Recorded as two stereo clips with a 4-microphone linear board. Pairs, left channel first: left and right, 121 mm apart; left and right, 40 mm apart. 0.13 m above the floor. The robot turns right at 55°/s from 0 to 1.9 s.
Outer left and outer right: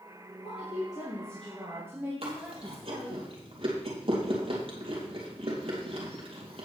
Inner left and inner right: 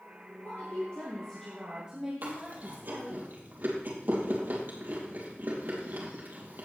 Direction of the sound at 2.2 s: 55° right (ahead or behind).